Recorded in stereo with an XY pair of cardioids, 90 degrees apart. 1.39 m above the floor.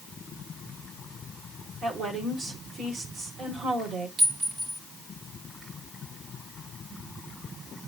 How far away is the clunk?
I don't hear a clunk.